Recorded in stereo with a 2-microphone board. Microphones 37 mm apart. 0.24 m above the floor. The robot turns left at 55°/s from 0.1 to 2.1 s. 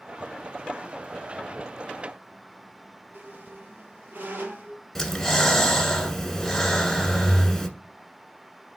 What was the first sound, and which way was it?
A squeak, 60° right (ahead or behind).